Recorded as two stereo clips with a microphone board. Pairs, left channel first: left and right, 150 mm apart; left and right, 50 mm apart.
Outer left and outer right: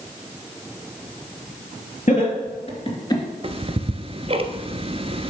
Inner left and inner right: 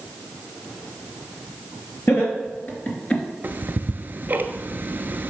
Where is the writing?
I don't hear writing.